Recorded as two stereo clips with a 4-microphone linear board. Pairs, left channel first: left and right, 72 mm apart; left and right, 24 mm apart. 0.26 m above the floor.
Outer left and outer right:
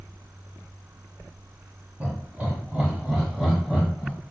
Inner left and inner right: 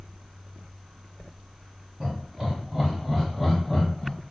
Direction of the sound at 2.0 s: 25° right (ahead or behind).